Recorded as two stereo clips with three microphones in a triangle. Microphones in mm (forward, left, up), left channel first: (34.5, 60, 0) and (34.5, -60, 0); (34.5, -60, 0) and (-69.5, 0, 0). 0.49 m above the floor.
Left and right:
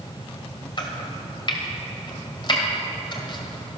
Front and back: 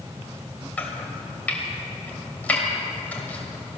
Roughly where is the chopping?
Ahead left.